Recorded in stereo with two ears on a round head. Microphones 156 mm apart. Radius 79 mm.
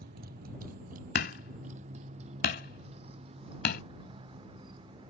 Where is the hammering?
60° left (ahead or behind).